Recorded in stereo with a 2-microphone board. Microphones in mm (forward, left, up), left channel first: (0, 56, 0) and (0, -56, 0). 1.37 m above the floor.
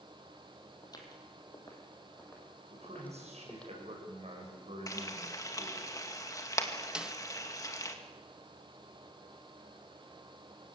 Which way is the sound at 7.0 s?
10° right (ahead or behind).